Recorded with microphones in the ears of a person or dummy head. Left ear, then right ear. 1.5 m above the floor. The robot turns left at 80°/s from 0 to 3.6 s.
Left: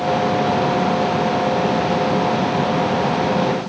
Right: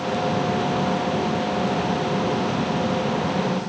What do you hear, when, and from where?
Only background noise.